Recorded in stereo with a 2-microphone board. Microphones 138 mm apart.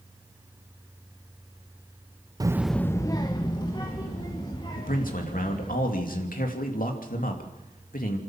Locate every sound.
2.4 s a child speaking: 30° right (ahead or behind), 0.6 m; by 5.8 s 35° left (ahead or behind), 4.5 m
4.8 s a man speaking: 85° left, 3 m